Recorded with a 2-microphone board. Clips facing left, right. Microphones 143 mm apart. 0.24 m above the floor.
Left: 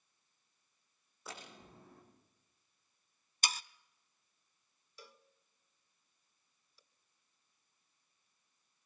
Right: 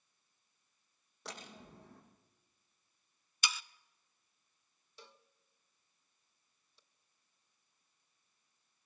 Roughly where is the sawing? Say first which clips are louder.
Left 1 dB; left.